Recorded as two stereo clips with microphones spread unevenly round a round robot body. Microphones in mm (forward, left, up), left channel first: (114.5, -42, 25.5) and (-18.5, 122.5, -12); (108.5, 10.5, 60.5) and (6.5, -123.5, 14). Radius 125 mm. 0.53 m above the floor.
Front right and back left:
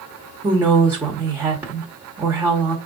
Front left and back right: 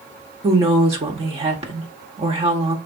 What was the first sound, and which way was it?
A woman speaking, 160° right.